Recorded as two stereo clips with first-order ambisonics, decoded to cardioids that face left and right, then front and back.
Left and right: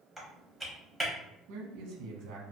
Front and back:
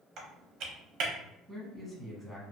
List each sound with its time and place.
0.2 s typing on a keyboard: 175° right, 0.8 m
1.5 s a man speaking: 80° right, 0.9 m